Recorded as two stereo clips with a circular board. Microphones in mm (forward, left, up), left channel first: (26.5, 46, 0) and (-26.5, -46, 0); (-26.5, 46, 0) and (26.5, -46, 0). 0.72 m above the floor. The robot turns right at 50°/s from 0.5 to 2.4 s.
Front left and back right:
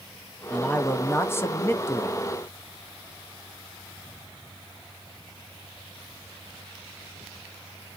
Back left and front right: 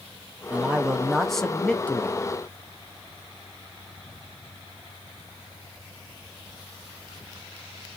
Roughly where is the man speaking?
Ahead.